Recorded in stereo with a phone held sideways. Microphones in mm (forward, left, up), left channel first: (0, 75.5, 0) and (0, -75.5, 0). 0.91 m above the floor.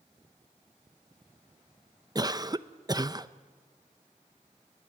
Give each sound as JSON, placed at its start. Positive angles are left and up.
{"t": 2.1, "sound": "a cough", "side_deg": -30, "distance_m": 0.6}